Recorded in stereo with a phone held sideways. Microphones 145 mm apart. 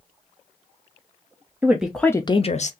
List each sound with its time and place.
1.6 s a woman speaking: 15° right (ahead or behind), 0.8 m; by 2.7 s 55° left (ahead or behind), 0.7 m